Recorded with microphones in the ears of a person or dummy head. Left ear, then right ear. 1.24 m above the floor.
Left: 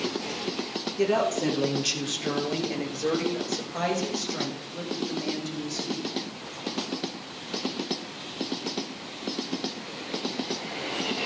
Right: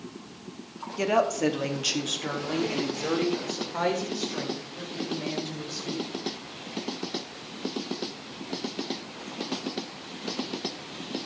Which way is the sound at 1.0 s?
75° right (ahead or behind).